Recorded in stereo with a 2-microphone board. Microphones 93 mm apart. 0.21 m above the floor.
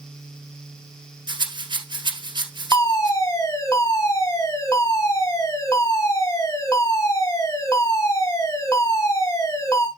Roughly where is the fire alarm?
Left.